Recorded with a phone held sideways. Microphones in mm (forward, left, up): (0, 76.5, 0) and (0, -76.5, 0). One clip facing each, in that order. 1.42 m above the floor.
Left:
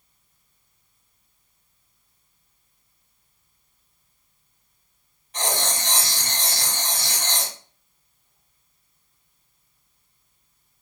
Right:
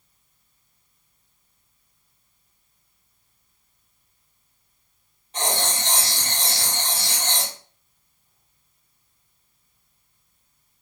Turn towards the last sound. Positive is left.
turn(degrees=-25)  # may be behind; listen again after turning